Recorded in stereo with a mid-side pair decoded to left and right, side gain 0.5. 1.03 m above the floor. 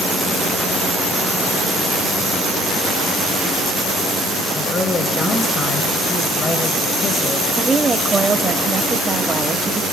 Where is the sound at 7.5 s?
20° right, 2 m.